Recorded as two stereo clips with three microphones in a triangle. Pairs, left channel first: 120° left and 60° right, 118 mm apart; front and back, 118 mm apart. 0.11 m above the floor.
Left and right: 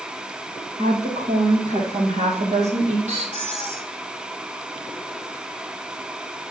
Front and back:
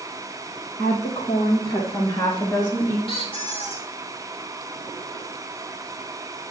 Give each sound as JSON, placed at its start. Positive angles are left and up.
{"t": 0.8, "sound": "a woman speaking", "azimuth_deg": -30, "distance_m": 4.5}
{"t": 3.1, "sound": "a squeak", "azimuth_deg": -40, "distance_m": 1.7}